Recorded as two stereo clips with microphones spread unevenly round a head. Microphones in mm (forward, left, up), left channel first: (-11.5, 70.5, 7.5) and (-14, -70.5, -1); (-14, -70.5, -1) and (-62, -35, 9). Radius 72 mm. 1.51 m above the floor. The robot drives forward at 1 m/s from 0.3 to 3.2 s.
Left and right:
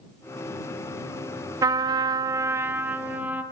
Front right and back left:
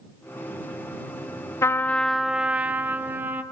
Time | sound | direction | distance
1.6 | a trumpet | 35° right | 0.6 m